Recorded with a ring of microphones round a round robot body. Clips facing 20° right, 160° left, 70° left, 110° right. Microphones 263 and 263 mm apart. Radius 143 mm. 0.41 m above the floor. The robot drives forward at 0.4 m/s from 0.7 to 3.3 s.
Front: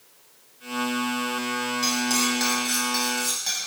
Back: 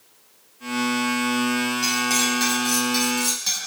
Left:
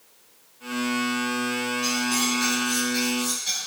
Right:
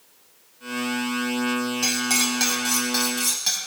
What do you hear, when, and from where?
1.8 s cutlery clinking: 110° right, 2.0 m; by 3.6 s 125° right, 2.5 m